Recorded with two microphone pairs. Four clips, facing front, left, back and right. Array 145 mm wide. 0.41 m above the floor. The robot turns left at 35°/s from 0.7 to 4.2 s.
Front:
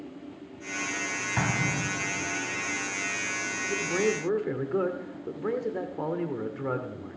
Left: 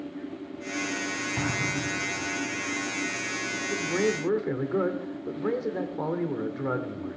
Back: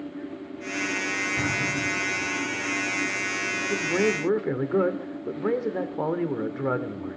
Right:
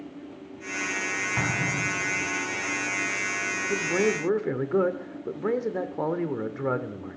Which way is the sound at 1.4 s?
25° right.